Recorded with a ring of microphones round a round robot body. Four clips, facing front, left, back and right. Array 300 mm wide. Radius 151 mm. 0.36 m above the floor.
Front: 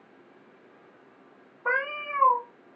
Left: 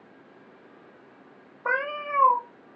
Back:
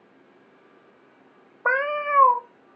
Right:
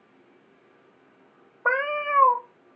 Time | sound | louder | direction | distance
1.6 | a cat meowing | right 4 dB, back 6 dB | 150° right | 0.6 m